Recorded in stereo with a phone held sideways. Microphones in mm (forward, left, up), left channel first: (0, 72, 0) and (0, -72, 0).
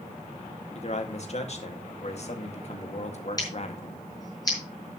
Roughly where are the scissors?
Left.